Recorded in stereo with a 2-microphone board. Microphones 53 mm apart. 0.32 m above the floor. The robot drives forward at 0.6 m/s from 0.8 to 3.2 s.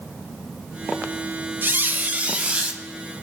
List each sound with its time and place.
1.6 s a squeak: 45° right (ahead or behind), 0.5 m; by 2.8 s 20° right (ahead or behind), 1.0 m